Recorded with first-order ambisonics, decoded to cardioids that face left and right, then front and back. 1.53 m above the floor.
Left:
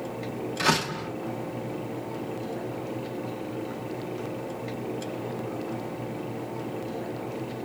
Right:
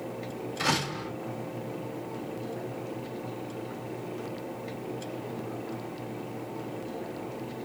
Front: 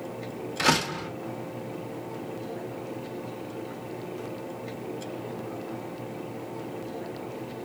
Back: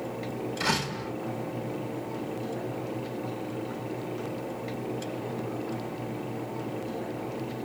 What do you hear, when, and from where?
0.6 s a door slam: 20° left, 4 m